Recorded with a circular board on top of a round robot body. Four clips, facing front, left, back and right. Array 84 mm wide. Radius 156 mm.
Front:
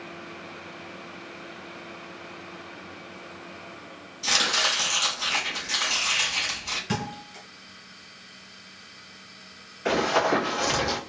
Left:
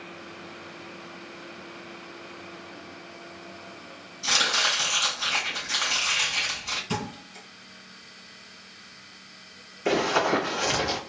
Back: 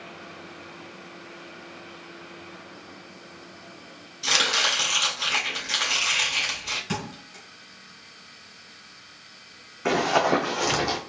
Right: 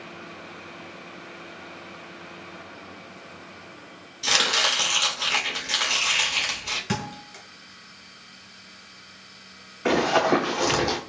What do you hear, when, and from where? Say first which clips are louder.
4.2 s chopping: right 2 dB, back 1 dB; 115° right, 2 m
6.9 s a thud: right 2 dB, front 4 dB; 85° right, 1.6 m
9.8 s running footsteps: right 3 dB, back 1 dB; 130° right, 2.5 m; by 11.0 s 115° right, 1.8 m